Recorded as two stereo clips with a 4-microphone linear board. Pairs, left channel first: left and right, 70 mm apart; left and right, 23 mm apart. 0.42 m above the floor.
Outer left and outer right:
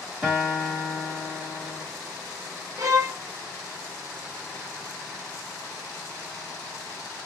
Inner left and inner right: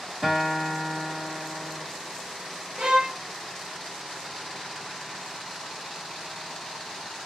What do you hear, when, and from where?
0.2 s a guitar: 5° left (ahead or behind), 1.7 m
2.8 s a violin: 55° right (ahead or behind), 0.9 m